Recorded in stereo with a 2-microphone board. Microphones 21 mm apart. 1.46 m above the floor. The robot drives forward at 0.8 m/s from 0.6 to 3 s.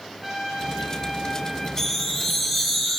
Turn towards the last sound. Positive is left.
turn(degrees=10)  # may be behind; listen again after turning